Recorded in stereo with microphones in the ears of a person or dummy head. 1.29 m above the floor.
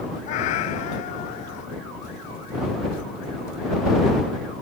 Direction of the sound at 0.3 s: 40° left (ahead or behind).